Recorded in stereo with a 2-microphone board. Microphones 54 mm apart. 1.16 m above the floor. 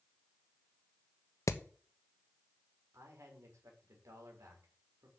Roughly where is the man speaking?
Right.